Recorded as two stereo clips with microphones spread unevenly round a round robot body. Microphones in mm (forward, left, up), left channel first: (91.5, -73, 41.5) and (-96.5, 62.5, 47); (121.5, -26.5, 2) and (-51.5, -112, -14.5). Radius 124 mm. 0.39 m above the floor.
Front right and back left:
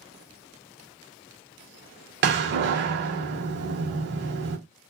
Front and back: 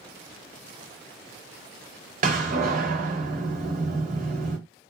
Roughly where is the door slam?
Behind.